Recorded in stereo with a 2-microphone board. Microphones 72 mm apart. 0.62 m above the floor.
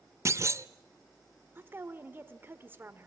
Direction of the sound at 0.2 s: 45° right (ahead or behind).